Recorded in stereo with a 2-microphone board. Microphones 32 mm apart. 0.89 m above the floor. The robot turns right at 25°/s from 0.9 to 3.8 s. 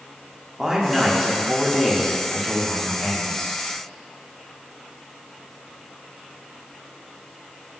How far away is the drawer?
I don't hear a drawer.